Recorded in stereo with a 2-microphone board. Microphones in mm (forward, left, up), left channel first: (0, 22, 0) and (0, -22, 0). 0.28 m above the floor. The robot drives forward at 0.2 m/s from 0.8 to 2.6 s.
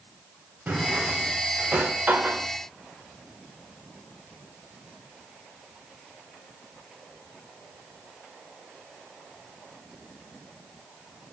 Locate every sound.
0.7 s a drawer: 35° right (ahead or behind), 0.5 m; by 2.5 s 40° right (ahead or behind), 0.5 m